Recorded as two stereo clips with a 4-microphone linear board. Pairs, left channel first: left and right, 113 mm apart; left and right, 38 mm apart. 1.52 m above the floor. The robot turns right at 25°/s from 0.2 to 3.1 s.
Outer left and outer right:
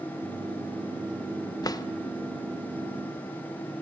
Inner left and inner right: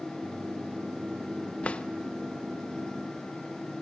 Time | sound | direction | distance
1.6 | a drawer | 35° left (ahead or behind) | 0.6 m